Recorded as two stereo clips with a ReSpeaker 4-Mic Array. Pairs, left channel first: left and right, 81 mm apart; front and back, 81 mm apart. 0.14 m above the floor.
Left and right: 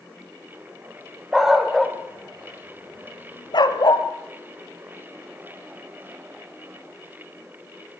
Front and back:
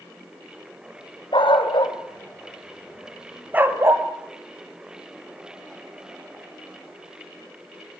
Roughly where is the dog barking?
Ahead.